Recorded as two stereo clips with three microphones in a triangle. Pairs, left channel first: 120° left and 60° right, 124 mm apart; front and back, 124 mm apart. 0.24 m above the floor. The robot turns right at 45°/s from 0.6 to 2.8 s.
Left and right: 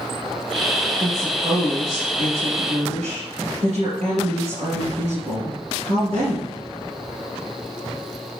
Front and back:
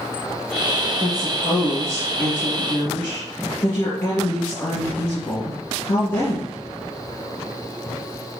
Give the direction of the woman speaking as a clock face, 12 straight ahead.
4 o'clock.